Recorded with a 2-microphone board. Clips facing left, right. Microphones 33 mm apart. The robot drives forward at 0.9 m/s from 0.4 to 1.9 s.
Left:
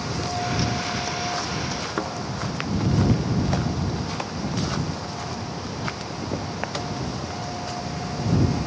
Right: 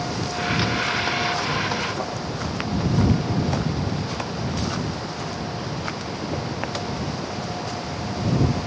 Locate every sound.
2.0 s a thud: 30° left (ahead or behind), 4.5 m